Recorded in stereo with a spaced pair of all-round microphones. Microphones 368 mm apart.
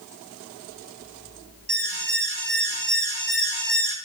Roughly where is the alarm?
Right.